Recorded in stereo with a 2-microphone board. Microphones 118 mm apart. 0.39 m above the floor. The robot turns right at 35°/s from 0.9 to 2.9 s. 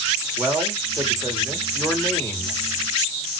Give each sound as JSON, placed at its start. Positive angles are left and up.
{"t": 0.4, "sound": "a man speaking", "azimuth_deg": -25, "distance_m": 1.9}